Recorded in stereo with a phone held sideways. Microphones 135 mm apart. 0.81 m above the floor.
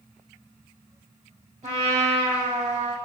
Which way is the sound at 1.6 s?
65° right (ahead or behind).